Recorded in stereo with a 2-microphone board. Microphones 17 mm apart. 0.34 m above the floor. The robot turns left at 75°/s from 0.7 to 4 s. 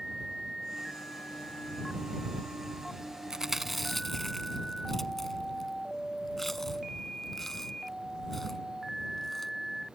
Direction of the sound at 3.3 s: 40° right (ahead or behind).